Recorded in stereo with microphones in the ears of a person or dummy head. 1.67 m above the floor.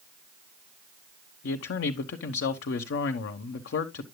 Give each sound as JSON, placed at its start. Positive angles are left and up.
{"t": 1.4, "sound": "a man speaking", "side_deg": 60, "distance_m": 1.1}